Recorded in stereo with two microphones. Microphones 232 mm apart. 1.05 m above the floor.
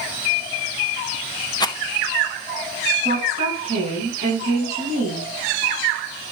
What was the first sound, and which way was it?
A rattle, 20° left (ahead or behind).